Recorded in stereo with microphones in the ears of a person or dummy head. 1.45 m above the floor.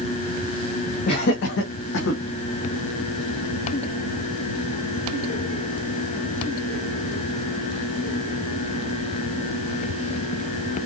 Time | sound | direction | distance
1.1 | laughter | 35° left (ahead or behind) | 0.6 m